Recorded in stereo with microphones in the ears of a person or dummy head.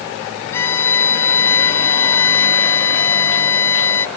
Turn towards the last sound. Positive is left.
turn(degrees=15)  # may be behind; listen again after turning